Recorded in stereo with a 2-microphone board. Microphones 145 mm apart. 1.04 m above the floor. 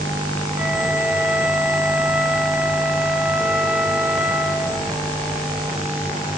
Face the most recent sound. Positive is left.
turn(degrees=-10)  # may be behind; listen again after turning